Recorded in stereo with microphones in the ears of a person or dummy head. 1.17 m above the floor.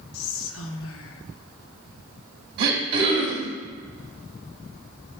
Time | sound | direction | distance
0.1 | whispering | 70° left (ahead or behind) | 1.0 m
2.6 | throat clearing | 65° right (ahead or behind) | 2 m